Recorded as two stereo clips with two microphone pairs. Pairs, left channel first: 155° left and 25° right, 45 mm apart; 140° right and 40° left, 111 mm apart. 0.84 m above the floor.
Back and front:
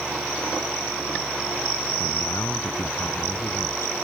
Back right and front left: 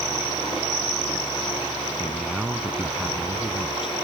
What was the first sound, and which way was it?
A man speaking, 125° left.